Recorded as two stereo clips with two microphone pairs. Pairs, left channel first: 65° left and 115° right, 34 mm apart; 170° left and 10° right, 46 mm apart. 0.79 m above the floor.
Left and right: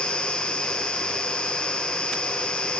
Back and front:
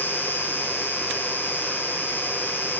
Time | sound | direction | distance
0.0 | an insect | 130° left | 1.7 m